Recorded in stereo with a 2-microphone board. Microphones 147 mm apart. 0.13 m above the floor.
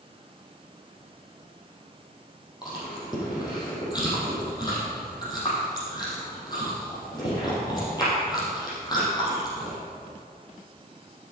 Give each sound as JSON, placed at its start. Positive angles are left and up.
{"t": 2.6, "sound": "chewing", "side_deg": 25, "distance_m": 5.0}